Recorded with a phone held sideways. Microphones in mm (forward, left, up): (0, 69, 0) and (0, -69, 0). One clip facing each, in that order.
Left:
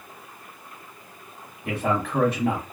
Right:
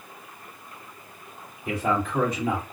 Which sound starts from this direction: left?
A man speaking, at 1.6 s.